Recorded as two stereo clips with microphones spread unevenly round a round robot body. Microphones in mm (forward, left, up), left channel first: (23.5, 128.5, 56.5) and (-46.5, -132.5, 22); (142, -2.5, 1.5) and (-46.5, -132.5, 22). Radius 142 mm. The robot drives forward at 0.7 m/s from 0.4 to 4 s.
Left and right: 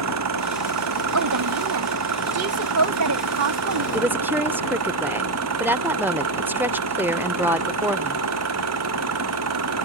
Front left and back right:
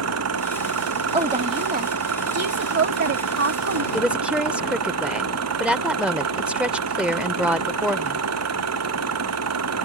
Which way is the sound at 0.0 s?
135° right.